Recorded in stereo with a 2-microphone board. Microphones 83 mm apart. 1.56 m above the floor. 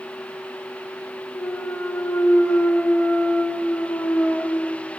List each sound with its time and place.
1.3 s a clunk: 15° left (ahead or behind), 1.1 m